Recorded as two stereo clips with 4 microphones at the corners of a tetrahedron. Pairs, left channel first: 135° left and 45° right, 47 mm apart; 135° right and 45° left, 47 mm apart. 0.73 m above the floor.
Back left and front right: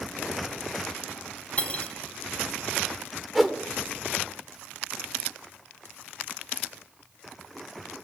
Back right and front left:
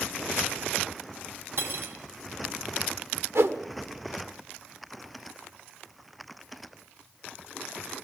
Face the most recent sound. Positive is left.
turn(degrees=45)